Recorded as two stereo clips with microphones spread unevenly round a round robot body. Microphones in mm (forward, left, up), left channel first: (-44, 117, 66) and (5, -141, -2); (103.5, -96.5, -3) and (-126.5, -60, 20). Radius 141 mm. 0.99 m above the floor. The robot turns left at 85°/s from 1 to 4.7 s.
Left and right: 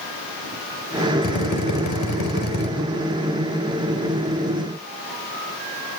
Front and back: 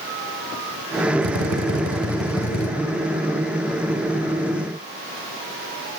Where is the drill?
165° left, 4.5 m; by 2.7 s 40° left, 4.5 m.